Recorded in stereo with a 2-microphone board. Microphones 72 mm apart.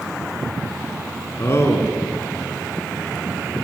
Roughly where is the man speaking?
Left.